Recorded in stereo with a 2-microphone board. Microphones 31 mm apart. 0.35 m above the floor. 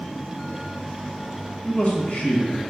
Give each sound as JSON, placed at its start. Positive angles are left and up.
{"t": 1.6, "sound": "a man speaking", "side_deg": 45, "distance_m": 1.7}